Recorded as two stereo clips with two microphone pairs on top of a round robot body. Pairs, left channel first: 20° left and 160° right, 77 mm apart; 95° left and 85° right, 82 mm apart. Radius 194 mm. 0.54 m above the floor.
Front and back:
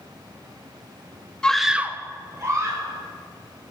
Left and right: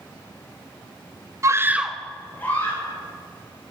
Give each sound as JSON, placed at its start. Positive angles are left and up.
{"t": 1.4, "sound": "a scream", "azimuth_deg": -65, "distance_m": 0.8}